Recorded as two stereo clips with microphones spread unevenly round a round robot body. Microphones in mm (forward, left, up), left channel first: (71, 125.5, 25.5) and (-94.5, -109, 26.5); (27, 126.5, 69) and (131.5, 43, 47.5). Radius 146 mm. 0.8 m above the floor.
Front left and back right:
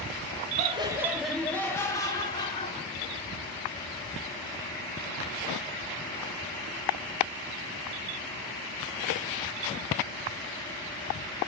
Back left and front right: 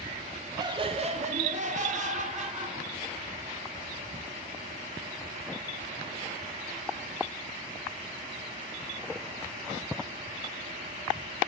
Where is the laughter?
70° right, 0.6 m; by 3.4 s 15° right, 2 m.